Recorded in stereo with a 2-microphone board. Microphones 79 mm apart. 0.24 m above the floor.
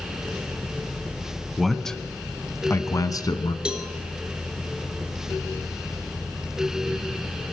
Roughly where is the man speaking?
Centre.